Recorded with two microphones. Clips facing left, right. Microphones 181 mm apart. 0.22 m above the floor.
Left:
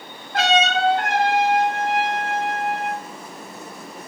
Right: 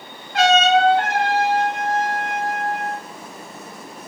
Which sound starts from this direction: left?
A trumpet, at 0.3 s.